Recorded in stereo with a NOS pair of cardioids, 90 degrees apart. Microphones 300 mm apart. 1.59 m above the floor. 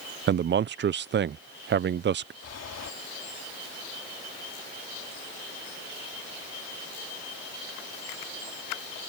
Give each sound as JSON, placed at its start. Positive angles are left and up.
{"t": 0.3, "sound": "a man speaking", "azimuth_deg": -40}
{"t": 2.4, "sound": "breathing", "azimuth_deg": 55}